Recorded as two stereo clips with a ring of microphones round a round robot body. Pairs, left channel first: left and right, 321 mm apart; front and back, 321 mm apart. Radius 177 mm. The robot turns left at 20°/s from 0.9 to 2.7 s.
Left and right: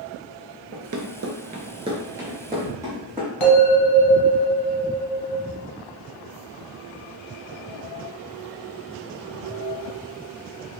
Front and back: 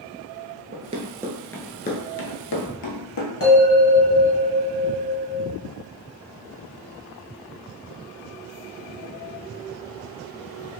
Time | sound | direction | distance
0.7 | running footsteps | 120° right | 0.7 m
3.4 | a bell | 55° left | 1.5 m